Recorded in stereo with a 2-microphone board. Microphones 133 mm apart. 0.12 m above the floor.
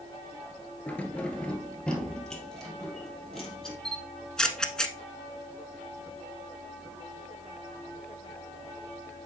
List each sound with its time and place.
0.9 s keys jangling: 10° left (ahead or behind), 1.4 m; by 3.8 s centre (ahead or behind), 2.5 m
3.9 s a camera shutter: 5° left (ahead or behind), 0.9 m